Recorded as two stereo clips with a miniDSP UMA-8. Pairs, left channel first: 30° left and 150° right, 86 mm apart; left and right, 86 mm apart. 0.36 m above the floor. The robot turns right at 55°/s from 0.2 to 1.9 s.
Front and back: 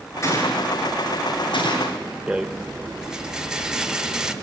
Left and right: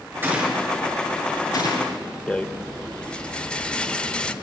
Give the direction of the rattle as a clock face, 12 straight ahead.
7 o'clock.